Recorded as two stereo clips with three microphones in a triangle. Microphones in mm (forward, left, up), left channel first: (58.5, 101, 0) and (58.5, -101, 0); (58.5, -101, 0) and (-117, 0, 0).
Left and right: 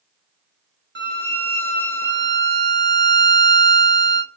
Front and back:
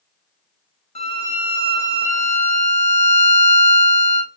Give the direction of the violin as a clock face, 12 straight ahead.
3 o'clock.